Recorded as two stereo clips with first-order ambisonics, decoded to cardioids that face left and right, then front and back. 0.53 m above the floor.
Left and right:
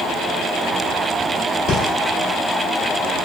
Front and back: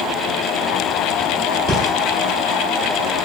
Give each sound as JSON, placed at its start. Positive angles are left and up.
{"t": 1.7, "sound": "breathing", "azimuth_deg": 115, "distance_m": 1.0}